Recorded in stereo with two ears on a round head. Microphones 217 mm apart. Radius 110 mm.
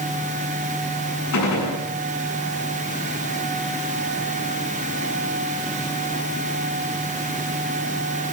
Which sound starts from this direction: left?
A gunshot, at 1.3 s.